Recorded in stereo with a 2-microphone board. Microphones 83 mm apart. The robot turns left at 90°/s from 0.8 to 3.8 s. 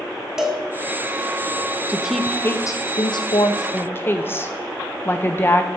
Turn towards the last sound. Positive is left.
turn(degrees=25)  # may be behind; listen again after turning